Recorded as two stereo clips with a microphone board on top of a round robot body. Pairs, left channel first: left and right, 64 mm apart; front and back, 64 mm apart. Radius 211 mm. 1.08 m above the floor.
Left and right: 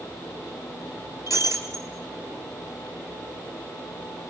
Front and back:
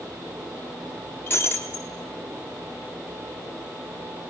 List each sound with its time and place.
1.3 s breaking glass: 65° left, 0.6 m